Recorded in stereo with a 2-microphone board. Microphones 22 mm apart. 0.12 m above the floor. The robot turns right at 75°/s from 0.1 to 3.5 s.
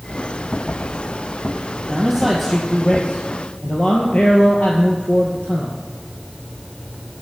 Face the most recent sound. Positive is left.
turn(degrees=85)